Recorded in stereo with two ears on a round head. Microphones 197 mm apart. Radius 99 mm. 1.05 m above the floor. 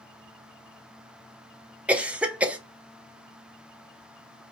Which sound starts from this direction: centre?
A cough, at 1.9 s.